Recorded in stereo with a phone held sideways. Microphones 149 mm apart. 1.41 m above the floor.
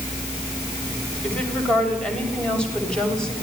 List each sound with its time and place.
1.2 s a woman speaking: 10° left (ahead or behind), 8 m; by 3.3 s 5° left (ahead or behind), 9 m